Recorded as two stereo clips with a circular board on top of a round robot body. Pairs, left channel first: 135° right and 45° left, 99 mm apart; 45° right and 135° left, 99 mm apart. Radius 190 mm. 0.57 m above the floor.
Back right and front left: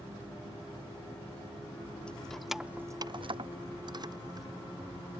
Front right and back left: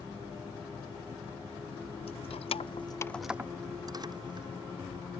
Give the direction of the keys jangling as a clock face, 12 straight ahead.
2 o'clock.